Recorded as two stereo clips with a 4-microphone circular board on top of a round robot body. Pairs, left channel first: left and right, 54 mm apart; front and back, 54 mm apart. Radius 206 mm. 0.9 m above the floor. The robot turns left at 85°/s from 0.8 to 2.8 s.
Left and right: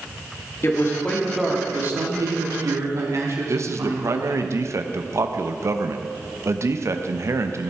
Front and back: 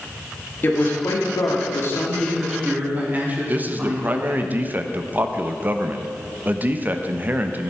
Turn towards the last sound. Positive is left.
turn(degrees=-120)